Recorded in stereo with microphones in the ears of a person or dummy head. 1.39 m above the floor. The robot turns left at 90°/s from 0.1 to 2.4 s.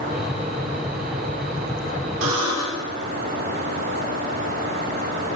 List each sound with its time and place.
2.2 s a buzzer: 70° right (ahead or behind), 3 m; by 2.9 s 90° right, 3 m